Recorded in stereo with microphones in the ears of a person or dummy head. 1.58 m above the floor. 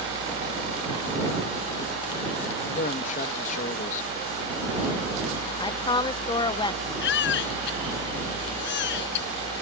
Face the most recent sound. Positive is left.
turn(degrees=65)  # may be behind; listen again after turning